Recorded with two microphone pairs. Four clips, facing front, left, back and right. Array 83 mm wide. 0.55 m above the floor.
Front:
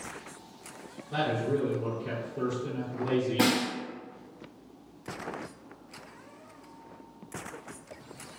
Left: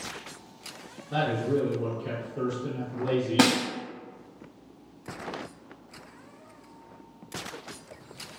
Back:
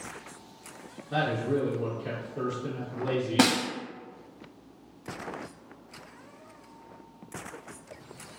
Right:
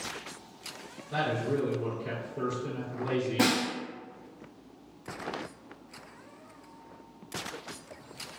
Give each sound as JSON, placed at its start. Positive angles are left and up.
{"t": 1.1, "sound": "a man speaking", "azimuth_deg": 150, "distance_m": 1.4}
{"t": 3.4, "sound": "a snare drum", "azimuth_deg": 125, "distance_m": 0.5}